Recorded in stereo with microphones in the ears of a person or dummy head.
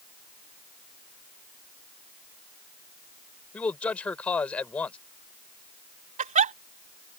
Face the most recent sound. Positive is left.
turn(degrees=-35)  # may be behind; listen again after turning